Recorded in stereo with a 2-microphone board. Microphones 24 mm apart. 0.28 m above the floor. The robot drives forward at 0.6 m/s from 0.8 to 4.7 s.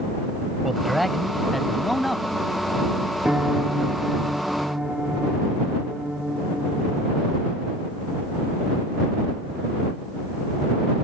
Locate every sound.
0.6 s a man speaking: centre (ahead or behind)
3.2 s a piano: 55° right (ahead or behind); by 7.3 s 45° right (ahead or behind)